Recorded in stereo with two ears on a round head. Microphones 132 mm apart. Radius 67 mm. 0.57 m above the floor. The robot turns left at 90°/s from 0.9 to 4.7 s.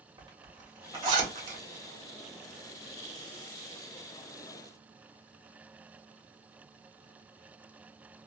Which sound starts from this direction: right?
A zipper, at 0.2 s.